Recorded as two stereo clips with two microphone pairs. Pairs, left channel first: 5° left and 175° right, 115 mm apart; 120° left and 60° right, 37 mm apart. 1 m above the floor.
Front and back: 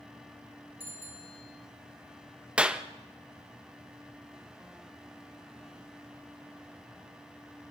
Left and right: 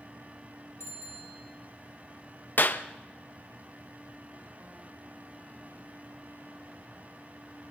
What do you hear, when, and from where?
0.8 s a bicycle bell: 110° left, 7.5 m
2.6 s a clap: 105° left, 0.9 m